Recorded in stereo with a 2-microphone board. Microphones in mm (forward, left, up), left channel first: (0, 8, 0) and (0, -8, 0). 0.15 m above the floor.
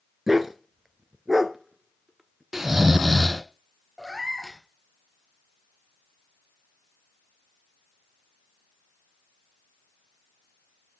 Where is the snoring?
20° right (ahead or behind), 0.5 m.